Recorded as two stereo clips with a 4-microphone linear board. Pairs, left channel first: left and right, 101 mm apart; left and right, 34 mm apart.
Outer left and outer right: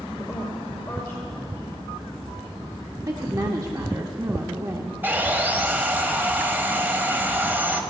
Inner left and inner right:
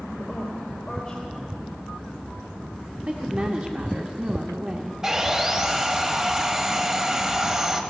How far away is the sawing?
About 1.1 m.